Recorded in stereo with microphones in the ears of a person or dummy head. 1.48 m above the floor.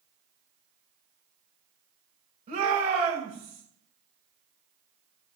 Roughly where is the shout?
Right.